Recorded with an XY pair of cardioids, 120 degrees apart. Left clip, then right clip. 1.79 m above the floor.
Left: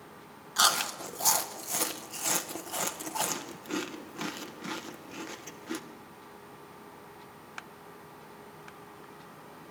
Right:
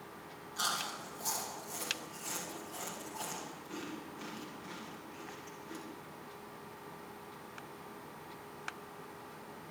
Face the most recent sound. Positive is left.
turn(degrees=65)